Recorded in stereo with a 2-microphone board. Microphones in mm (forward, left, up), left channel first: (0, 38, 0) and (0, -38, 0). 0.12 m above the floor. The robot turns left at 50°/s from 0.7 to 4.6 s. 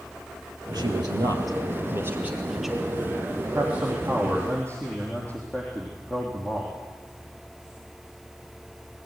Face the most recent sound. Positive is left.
turn(degrees=160)